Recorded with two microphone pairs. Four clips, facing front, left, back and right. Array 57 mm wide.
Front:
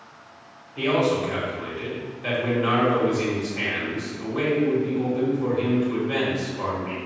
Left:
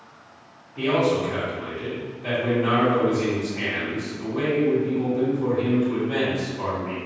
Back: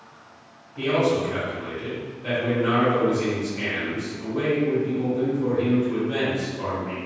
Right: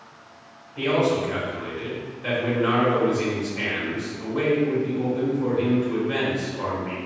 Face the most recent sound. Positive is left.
turn(degrees=-25)